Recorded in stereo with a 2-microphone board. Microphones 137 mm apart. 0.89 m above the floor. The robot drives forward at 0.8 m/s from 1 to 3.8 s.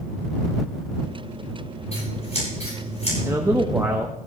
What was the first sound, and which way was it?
Scissors, 50° left (ahead or behind).